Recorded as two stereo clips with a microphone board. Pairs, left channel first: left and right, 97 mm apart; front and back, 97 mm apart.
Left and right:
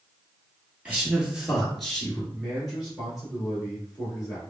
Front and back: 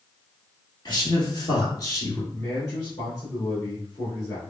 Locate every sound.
0.8 s a man speaking: 15° right, 1.7 m; by 2.2 s 15° left, 1.3 m
2.3 s a man speaking: 5° right, 1.9 m